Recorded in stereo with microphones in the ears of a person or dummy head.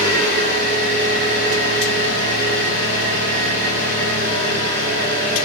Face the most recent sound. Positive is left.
turn(degrees=-60)  # may be behind; listen again after turning